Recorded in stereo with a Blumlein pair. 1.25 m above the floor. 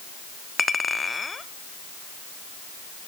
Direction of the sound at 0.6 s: 15° left.